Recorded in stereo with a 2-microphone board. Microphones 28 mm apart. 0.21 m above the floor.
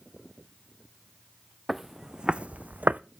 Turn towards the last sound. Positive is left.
turn(degrees=-65)  # may be behind; listen again after turning